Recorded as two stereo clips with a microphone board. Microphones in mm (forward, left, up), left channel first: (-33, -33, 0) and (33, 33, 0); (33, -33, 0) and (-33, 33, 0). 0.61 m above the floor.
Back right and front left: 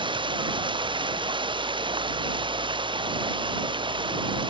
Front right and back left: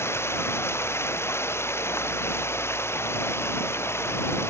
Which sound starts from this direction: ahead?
Running water, at 0.0 s.